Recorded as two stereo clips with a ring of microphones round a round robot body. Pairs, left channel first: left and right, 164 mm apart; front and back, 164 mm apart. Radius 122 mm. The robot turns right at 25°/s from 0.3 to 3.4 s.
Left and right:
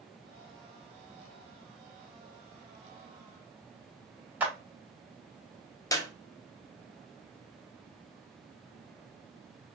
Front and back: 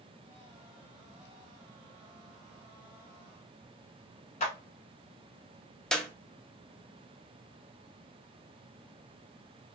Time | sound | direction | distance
4.4 | a clap | 15° right | 1.2 m
5.9 | a clap | 80° left | 0.6 m